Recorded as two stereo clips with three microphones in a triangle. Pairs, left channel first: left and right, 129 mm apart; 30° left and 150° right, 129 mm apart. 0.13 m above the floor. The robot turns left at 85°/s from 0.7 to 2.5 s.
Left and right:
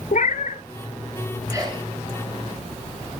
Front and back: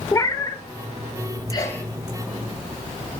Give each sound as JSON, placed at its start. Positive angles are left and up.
{"t": 0.1, "sound": "a cat meowing", "azimuth_deg": 90, "distance_m": 0.6}
{"t": 1.5, "sound": "a sneeze", "azimuth_deg": -25, "distance_m": 2.0}